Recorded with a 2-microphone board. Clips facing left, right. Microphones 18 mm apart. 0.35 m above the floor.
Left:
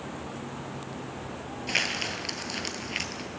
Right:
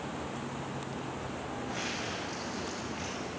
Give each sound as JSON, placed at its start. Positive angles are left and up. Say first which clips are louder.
{"t": 1.7, "sound": "crumpling", "louder": "left 10 dB", "side_deg": 80, "distance_m": 1.1}